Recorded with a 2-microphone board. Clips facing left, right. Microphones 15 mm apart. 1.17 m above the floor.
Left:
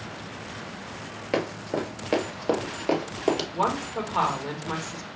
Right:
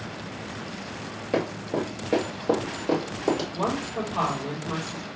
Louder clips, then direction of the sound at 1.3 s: Right 1 dB; 30° left (ahead or behind).